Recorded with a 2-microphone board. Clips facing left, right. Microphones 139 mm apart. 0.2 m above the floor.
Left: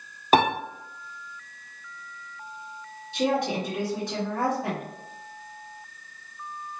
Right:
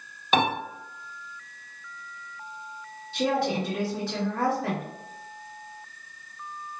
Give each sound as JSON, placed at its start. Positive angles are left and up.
{"t": 0.3, "sound": "a piano", "side_deg": 40, "distance_m": 1.0}
{"t": 3.1, "sound": "a woman speaking", "side_deg": 15, "distance_m": 1.4}